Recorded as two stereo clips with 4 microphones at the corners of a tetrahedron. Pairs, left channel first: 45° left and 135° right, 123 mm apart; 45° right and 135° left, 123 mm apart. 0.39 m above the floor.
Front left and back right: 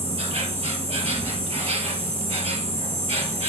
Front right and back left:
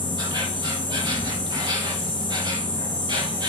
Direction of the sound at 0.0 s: 175° right.